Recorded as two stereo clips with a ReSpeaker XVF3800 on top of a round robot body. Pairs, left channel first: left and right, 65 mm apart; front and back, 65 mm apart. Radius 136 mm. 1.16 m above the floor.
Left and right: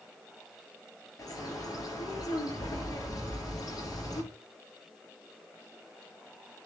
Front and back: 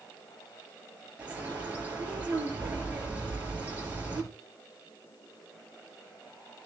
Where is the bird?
115° left, 7 m.